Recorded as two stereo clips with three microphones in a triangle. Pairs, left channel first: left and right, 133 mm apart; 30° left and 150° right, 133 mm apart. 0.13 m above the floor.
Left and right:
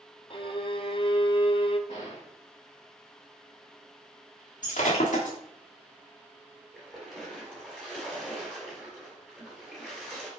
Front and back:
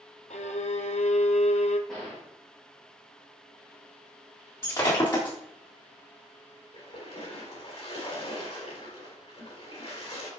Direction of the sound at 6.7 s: Straight ahead.